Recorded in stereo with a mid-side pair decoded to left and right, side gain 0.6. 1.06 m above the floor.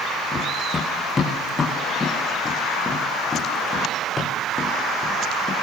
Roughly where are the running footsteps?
Ahead left.